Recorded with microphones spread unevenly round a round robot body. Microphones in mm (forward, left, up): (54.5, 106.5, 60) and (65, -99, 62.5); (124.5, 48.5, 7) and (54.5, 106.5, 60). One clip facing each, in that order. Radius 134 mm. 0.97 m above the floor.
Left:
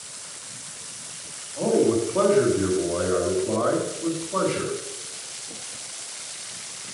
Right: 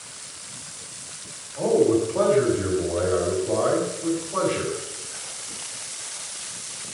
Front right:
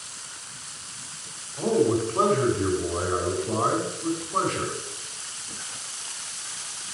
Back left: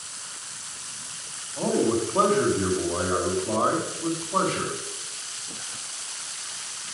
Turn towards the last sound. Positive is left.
turn(degrees=160)